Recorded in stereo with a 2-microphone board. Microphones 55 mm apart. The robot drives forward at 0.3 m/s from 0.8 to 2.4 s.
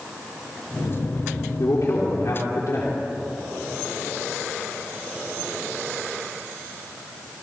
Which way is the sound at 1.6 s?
70° left (ahead or behind).